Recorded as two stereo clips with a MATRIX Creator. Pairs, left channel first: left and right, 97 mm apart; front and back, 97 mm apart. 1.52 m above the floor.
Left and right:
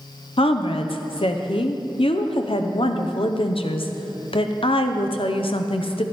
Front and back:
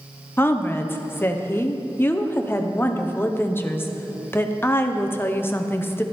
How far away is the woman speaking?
About 0.8 m.